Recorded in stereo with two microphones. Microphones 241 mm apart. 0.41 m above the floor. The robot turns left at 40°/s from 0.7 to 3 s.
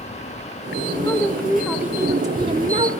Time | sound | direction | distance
1.0 | a woman speaking | 20° left | 0.9 m